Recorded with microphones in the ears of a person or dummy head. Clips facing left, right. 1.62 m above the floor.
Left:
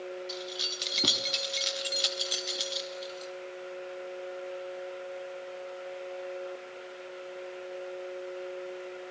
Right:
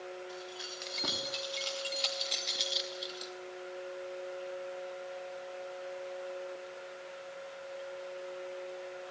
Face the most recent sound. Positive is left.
turn(degrees=-20)  # may be behind; listen again after turning